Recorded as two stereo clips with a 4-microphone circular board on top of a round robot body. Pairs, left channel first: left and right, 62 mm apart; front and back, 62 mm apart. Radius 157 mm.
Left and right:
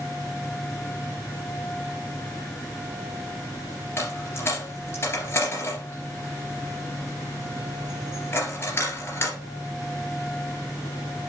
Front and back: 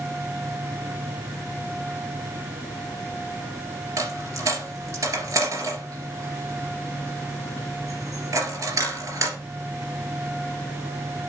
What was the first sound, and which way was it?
A dropped coin, 145° left.